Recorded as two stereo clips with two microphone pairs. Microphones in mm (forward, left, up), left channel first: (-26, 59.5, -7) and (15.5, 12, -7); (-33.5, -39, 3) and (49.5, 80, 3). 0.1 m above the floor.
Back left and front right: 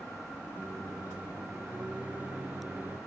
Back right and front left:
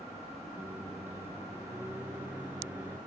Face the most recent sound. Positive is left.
turn(degrees=0)